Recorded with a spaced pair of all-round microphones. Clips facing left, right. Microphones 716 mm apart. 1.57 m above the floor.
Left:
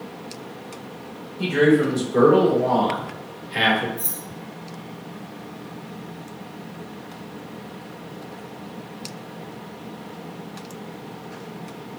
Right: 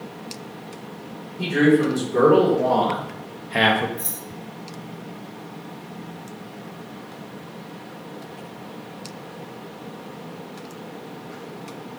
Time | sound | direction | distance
1.4 | a man speaking | 50° right (ahead or behind) | 2 m
4.0 | keys jangling | 75° left (ahead or behind) | 1.9 m